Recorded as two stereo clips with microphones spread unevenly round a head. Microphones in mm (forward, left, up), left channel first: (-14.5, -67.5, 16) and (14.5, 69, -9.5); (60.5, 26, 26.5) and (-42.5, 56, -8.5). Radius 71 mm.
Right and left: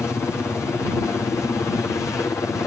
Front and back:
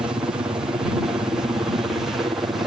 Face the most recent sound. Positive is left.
turn(degrees=-170)